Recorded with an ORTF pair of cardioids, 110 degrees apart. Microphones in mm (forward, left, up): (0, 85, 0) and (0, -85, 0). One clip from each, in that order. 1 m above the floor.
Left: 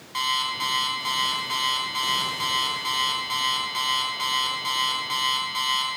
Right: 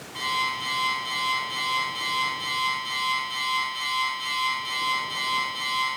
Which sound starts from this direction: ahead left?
An alarm clock, at 0.1 s.